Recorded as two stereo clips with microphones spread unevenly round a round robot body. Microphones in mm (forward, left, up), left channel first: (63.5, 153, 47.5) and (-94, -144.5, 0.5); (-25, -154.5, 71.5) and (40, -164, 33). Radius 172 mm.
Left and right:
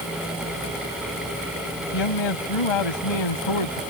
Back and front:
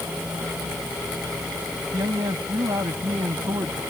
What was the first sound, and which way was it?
A man speaking, 45° left.